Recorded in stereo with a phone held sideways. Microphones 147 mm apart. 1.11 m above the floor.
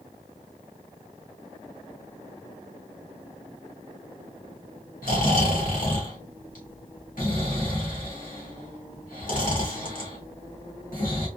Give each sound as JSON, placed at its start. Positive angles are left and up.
{"t": 5.0, "sound": "snoring", "side_deg": 65, "distance_m": 1.4}